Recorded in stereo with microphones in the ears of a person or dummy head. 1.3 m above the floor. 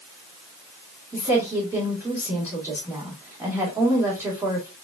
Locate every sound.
1.1 s a woman speaking: centre (ahead or behind), 1.8 m